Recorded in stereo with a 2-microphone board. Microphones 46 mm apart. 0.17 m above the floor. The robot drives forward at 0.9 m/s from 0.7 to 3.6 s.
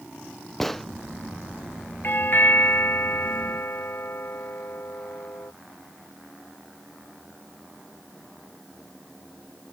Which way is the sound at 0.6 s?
5° left (ahead or behind).